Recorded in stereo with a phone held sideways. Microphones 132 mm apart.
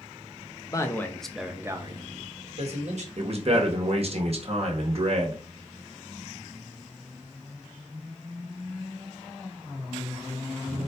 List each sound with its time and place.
0.7 s a man speaking: 25° left (ahead or behind), 0.7 m; by 3.1 s 60° right (ahead or behind), 1.2 m
3.2 s a man speaking: 50° right (ahead or behind), 1.1 m